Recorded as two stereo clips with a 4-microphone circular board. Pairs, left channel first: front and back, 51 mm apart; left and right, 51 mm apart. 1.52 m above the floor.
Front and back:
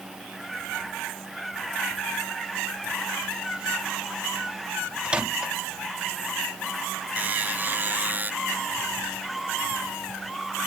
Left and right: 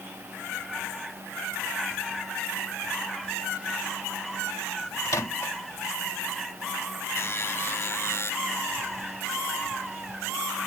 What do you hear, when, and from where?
5.0 s a microwave: 110° left
7.2 s a buzzer: 130° left